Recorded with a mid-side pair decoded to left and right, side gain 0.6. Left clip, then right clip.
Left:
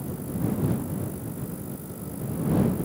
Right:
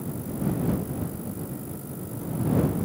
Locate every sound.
Only background noise.